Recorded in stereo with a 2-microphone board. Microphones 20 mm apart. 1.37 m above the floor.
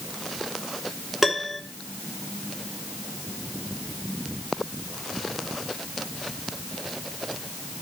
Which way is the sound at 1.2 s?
5° right (ahead or behind).